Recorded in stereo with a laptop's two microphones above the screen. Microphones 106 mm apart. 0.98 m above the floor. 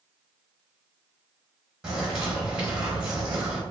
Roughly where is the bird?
Centre.